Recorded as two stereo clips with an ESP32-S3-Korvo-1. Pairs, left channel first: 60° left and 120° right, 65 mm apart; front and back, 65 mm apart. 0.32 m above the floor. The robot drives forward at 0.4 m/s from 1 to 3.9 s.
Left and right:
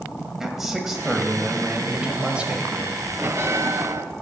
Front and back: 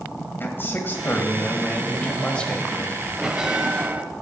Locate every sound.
0.4 s a man speaking: 40° right, 1.8 m; by 3.1 s 75° right, 1.6 m
3.2 s a bell: 100° right, 1.0 m; by 4.0 s 120° right, 1.1 m